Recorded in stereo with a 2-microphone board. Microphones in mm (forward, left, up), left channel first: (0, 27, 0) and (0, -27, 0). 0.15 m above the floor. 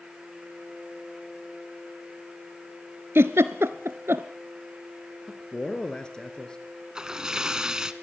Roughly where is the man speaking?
Centre.